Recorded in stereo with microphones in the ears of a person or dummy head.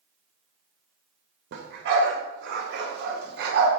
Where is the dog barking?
65° right (ahead or behind), 2.5 m.